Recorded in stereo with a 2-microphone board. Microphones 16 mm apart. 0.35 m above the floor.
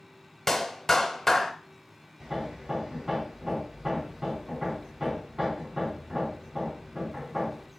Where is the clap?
15° left (ahead or behind), 0.8 m.